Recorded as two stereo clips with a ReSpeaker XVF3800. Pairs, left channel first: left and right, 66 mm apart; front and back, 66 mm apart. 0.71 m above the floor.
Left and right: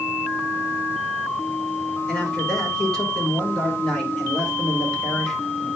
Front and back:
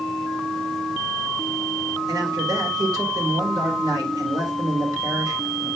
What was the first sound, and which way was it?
A man speaking, 170° left.